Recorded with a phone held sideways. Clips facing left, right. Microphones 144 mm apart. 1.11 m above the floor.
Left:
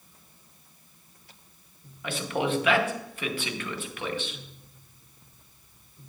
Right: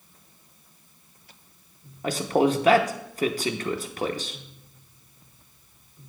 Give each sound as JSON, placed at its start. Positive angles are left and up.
{"t": 2.0, "sound": "a man speaking", "side_deg": -40, "distance_m": 0.7}